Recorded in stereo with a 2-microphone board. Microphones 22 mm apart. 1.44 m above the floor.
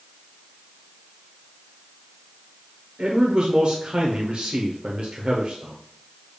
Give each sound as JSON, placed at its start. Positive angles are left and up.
{"t": 3.0, "sound": "a man speaking", "side_deg": -45, "distance_m": 0.8}